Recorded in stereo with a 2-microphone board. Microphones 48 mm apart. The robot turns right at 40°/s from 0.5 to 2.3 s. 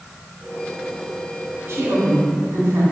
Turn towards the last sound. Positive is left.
turn(degrees=-65)  # may be behind; listen again after turning